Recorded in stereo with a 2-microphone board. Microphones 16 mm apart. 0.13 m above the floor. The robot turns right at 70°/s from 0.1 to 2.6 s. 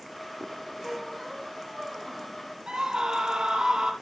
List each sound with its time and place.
0.8 s a squeak: 135° left, 3.5 m; by 2.4 s 115° right, 3.5 m
2.7 s a scream: 60° right (ahead or behind), 3.5 m